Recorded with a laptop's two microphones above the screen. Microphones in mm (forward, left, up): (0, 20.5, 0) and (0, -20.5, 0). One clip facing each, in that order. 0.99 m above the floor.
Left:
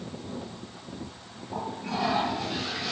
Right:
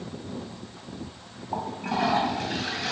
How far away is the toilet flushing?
About 2.5 m.